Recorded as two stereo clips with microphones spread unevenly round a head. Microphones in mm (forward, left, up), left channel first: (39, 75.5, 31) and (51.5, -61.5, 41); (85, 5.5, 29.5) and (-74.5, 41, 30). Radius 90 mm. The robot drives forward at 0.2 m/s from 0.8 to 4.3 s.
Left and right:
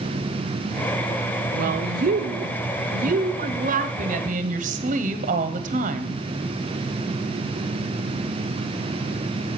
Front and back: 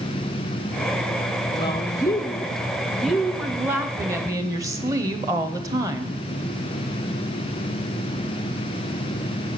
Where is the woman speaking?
75° right, 0.7 m; by 6.2 s 120° right, 0.8 m.